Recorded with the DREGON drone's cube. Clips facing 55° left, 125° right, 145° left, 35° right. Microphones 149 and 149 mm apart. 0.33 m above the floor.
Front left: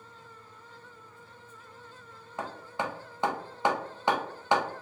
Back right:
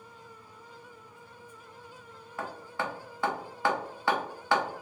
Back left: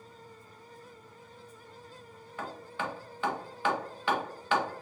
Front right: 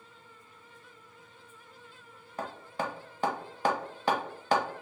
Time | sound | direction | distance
2.4 | hammering | 5° right | 0.7 m